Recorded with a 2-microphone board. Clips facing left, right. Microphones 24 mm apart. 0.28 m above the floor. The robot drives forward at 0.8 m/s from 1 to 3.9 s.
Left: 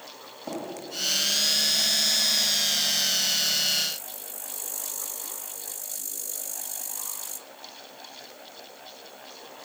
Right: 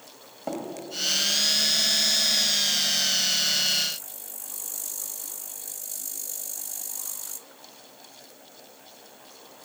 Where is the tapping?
30° right (ahead or behind), 1.6 m.